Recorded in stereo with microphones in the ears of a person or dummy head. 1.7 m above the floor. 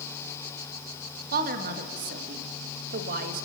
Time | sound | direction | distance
1.3 | a woman speaking | 55° right (ahead or behind) | 1.9 m